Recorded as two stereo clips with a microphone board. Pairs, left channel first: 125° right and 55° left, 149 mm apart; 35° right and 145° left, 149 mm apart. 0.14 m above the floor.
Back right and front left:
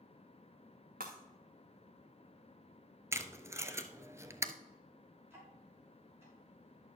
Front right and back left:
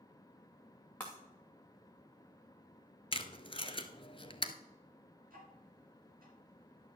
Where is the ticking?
130° left, 5.5 m.